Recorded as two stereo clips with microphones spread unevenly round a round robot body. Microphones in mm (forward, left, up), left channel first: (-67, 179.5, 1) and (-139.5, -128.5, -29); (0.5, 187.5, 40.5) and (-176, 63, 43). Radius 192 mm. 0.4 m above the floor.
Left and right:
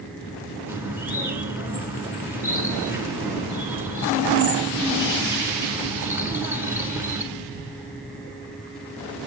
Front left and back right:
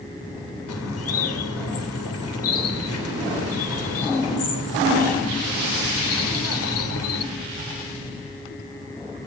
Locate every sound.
0.7 s a bird: 15° right, 0.6 m